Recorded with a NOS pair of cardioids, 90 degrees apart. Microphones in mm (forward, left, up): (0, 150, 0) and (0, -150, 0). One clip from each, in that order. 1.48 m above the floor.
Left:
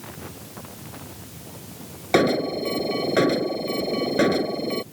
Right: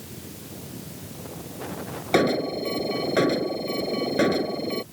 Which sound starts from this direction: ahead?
An alarm, at 2.1 s.